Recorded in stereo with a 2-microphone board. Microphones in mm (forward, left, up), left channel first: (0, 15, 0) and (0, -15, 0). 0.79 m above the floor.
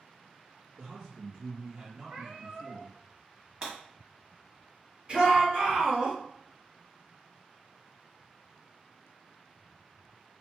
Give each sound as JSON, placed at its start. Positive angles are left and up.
{"t": 0.8, "sound": "a man speaking", "side_deg": -30, "distance_m": 1.1}
{"t": 2.1, "sound": "a cat meowing", "side_deg": -55, "distance_m": 1.1}
{"t": 3.6, "sound": "breaking glass", "side_deg": -30, "distance_m": 1.2}
{"t": 5.1, "sound": "a shout", "side_deg": -35, "distance_m": 1.8}